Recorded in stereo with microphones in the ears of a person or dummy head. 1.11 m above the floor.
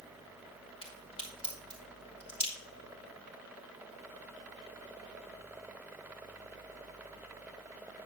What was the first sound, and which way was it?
A crack, 25° left (ahead or behind).